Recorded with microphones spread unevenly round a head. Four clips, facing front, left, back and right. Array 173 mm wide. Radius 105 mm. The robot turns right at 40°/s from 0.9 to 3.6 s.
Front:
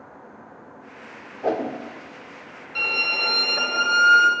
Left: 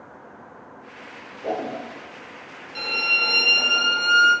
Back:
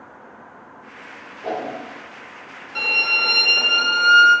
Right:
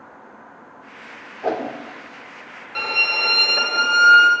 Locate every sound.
1.4 s a whoosh: 25° right, 0.5 m; by 1.8 s 15° right, 0.5 m
2.8 s a violin: 125° right, 0.9 m; by 4.3 s 95° right, 0.9 m